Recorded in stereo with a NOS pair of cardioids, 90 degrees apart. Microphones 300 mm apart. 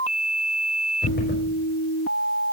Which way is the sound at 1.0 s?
40° left.